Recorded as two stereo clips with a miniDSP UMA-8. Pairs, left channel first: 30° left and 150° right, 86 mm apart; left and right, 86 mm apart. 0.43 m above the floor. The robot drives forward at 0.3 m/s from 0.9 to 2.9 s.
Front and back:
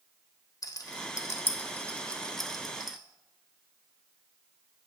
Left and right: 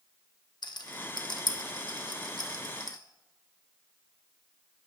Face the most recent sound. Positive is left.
turn(degrees=125)